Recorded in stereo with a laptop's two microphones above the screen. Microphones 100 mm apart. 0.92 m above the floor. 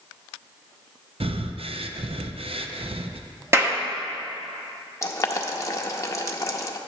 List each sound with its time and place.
1.2 s breathing: 70° right (ahead or behind), 0.5 m
3.5 s a clap: 25° right (ahead or behind), 1.3 m
5.0 s boiling: 30° left (ahead or behind), 0.6 m